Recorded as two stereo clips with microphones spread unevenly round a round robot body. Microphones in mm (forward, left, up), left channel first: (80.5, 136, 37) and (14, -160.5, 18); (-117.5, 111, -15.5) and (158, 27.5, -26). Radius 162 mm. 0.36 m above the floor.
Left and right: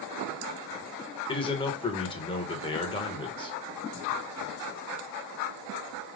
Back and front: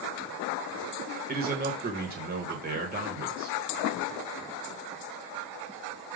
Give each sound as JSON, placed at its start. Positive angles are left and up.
{"t": 1.3, "sound": "a man speaking", "azimuth_deg": 10, "distance_m": 1.2}